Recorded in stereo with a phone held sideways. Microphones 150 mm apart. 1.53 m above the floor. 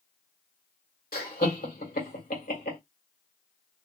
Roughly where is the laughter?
Left.